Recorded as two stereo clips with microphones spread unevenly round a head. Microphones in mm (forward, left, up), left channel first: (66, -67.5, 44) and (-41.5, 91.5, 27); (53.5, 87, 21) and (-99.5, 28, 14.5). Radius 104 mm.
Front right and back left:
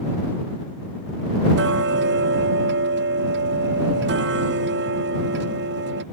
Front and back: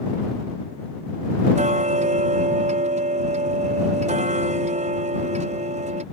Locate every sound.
1.6 s ticking: 155° left